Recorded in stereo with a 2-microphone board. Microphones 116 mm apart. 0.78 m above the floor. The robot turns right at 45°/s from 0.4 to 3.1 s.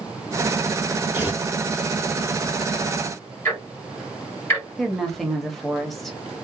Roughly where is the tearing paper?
Right.